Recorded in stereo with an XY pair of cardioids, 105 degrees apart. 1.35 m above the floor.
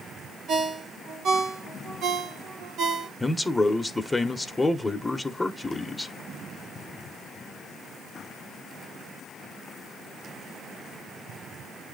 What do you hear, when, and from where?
0.5 s a ringtone: 65° right, 0.9 m
3.2 s a man speaking: 10° left, 0.9 m